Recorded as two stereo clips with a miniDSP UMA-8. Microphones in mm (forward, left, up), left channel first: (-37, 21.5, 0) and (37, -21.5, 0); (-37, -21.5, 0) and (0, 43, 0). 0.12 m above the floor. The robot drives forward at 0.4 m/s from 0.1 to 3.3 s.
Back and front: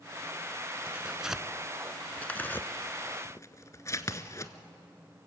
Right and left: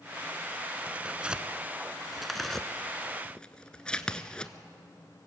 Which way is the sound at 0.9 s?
20° left.